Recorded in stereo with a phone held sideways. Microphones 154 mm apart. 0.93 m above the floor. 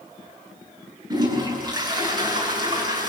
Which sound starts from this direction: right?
A toilet flushing, at 1.1 s.